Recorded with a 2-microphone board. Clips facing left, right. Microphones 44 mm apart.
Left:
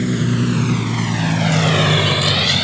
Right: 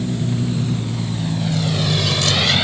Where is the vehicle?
70° left (ahead or behind); by 2.6 s 10° right (ahead or behind).